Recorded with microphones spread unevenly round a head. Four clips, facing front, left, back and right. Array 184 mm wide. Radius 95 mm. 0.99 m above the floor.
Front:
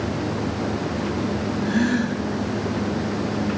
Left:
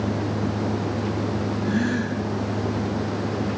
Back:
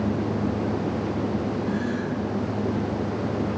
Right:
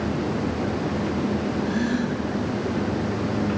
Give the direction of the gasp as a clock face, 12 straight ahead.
12 o'clock.